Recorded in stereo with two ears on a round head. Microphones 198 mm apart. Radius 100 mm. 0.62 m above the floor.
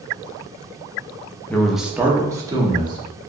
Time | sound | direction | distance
1.5 | a man speaking | 5° left (ahead or behind) | 0.6 m